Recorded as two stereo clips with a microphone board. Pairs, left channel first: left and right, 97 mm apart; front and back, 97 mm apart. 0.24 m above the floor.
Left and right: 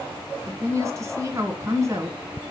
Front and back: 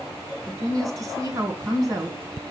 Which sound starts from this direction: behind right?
A woman speaking, at 0.5 s.